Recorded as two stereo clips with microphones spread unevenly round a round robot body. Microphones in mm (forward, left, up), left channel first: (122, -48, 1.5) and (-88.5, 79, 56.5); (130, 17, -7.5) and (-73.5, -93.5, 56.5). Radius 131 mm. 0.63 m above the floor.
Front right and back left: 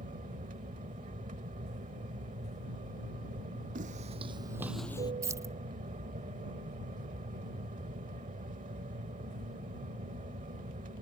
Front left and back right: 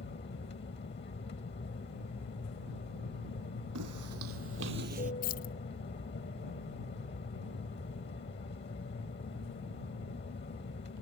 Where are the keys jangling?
65° left.